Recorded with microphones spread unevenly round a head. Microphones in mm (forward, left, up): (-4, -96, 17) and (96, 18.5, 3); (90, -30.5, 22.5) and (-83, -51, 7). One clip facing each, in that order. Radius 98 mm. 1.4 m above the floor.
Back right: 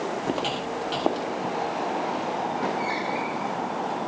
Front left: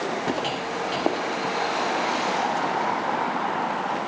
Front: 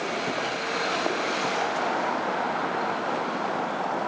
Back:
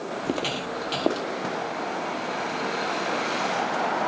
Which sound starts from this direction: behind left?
Footsteps, at 0.2 s.